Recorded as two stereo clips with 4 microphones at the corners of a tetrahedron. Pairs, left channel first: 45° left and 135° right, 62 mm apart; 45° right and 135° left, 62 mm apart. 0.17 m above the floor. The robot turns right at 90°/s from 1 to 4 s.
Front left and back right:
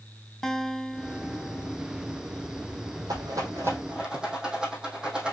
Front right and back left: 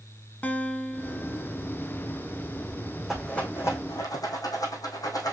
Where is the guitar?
25° right, 1.2 m; by 1.8 s 45° left, 1.2 m.